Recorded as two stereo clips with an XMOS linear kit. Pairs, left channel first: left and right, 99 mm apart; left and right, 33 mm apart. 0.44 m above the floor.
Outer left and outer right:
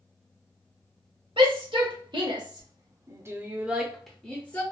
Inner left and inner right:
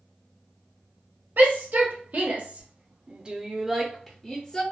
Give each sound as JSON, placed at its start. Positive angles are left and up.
{"t": 1.4, "sound": "a shout", "side_deg": -60, "distance_m": 1.4}